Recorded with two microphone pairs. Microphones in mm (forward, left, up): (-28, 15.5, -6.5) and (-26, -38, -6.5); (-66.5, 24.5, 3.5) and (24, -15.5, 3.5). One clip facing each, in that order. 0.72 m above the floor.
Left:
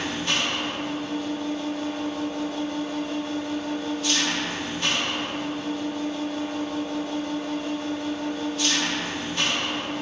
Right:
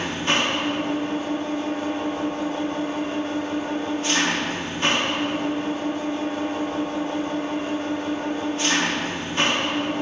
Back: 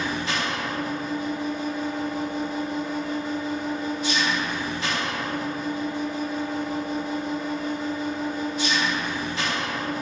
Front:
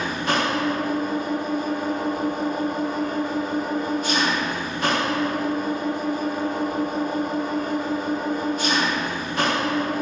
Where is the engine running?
40° right, 1.2 m.